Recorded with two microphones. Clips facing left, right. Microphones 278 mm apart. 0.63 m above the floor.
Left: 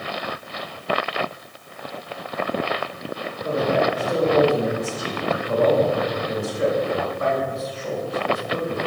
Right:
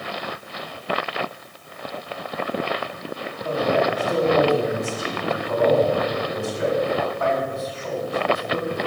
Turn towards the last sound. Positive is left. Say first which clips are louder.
# even
turn(degrees=45)  # may be behind; listen again after turning